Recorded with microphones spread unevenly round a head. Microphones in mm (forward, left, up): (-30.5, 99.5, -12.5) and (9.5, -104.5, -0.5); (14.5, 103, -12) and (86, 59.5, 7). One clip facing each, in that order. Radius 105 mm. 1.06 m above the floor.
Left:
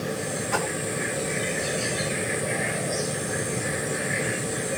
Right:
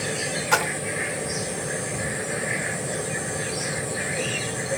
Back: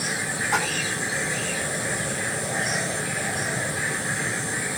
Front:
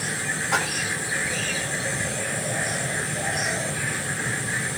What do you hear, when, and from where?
0.5 s a splash: 85° right, 0.8 m